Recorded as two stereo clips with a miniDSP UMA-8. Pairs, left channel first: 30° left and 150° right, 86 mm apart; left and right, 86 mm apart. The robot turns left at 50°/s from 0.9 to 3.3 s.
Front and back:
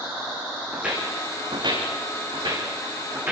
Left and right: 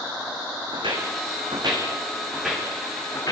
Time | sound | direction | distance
0.7 | footsteps | 75° right | 6 m